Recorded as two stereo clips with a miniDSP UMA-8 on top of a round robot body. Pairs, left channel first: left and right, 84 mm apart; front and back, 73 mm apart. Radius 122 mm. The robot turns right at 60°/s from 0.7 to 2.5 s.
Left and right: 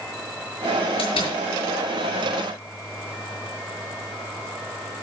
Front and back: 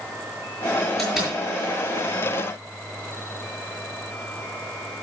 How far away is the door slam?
About 6.5 m.